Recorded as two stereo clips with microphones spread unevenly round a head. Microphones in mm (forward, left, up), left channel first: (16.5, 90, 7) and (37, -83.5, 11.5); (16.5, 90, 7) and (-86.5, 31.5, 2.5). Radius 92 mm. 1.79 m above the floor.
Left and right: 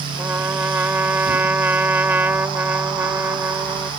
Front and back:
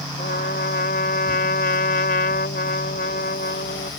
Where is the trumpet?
5° right.